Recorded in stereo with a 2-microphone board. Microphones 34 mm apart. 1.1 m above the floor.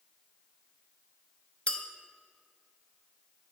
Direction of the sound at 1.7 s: 35° left (ahead or behind).